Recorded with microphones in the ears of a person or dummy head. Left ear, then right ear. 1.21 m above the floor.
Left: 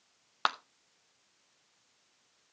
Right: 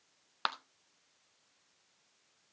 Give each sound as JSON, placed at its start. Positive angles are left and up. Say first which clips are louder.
{"t": 0.5, "sound": "a clap", "louder": "left 5 dB", "side_deg": 10, "distance_m": 0.7}